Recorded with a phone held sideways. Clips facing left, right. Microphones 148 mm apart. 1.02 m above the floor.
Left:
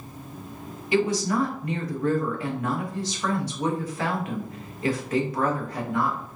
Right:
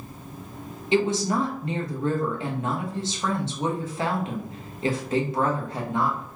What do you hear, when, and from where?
0.9 s a woman speaking: 25° right (ahead or behind), 0.9 m